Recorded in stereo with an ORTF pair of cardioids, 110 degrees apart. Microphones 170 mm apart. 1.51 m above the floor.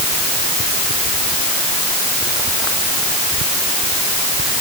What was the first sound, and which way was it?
Only background noise.